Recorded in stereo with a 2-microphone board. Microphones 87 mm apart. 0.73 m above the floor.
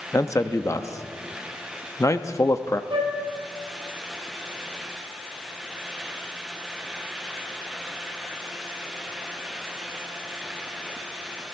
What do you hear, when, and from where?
0.1 s a man speaking: 35° left (ahead or behind), 0.7 m
2.9 s a flute: 75° right (ahead or behind), 2.5 m